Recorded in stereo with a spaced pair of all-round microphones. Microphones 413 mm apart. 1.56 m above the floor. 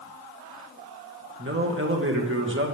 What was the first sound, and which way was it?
A man speaking, 30° right (ahead or behind).